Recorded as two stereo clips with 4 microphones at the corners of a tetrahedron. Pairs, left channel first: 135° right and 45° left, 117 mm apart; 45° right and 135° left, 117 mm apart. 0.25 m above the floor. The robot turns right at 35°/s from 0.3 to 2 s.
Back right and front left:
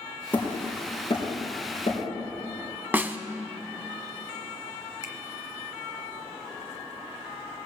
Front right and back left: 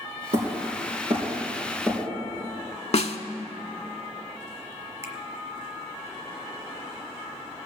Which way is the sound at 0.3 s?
150° left.